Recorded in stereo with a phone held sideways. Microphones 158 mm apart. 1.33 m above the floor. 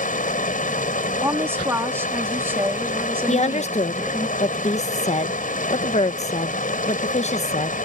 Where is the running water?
60° left (ahead or behind).